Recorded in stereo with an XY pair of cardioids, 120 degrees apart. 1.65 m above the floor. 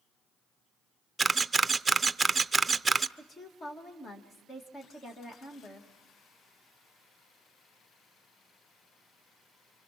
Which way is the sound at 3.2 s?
35° left.